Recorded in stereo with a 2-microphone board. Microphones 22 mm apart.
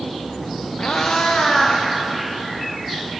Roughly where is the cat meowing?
Left.